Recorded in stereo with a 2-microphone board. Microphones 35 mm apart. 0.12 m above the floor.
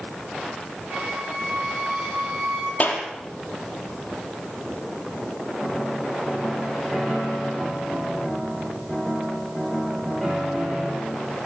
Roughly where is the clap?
Left.